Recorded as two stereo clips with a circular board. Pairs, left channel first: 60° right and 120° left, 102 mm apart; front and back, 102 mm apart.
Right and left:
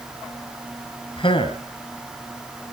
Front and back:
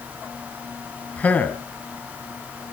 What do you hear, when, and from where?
1.2 s a man speaking: 70° right, 2 m